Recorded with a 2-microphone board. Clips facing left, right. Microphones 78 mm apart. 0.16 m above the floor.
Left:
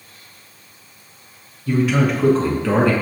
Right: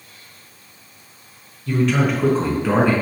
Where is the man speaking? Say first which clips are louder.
Left 1 dB; 15° left (ahead or behind), 1.4 m; by 2.9 s 20° right (ahead or behind), 1.6 m.